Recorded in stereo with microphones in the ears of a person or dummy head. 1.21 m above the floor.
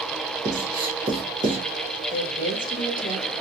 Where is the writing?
15° right (ahead or behind), 1.2 m.